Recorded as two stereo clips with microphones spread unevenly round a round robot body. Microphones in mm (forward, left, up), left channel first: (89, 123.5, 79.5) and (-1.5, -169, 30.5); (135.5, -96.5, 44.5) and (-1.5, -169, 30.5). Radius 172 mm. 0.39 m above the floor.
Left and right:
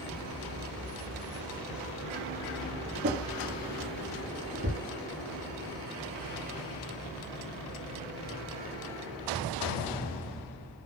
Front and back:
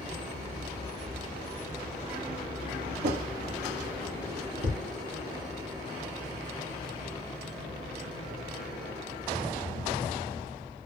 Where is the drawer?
170° right, 5 m.